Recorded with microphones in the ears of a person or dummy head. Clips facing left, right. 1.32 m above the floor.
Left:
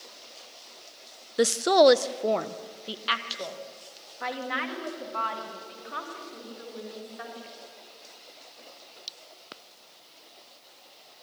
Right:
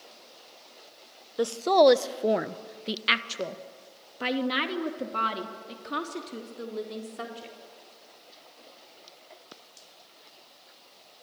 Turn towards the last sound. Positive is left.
turn(degrees=-60)  # may be behind; listen again after turning